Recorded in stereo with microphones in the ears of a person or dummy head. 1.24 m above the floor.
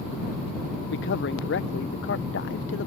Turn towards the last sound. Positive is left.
turn(degrees=60)  # may be behind; listen again after turning